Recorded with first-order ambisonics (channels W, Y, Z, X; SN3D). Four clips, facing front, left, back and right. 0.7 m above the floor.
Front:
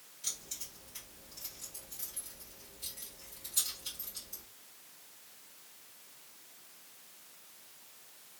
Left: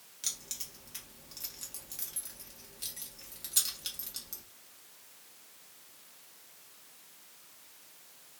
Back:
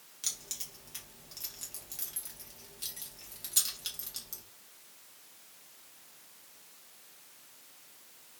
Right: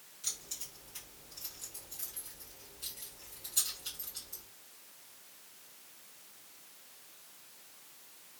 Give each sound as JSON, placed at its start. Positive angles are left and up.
{"t": 0.2, "sound": "keys jangling", "azimuth_deg": 140, "distance_m": 1.2}